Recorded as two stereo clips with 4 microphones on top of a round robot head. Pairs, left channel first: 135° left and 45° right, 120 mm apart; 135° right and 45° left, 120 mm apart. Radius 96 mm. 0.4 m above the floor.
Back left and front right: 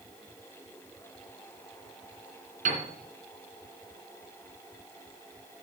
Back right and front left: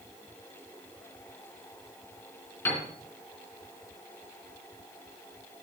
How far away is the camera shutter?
No camera shutter in this recording.